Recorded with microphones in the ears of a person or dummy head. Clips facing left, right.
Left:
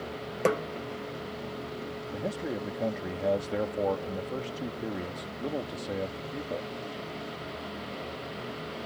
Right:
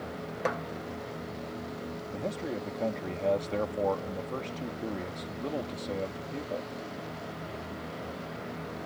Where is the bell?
No bell in this recording.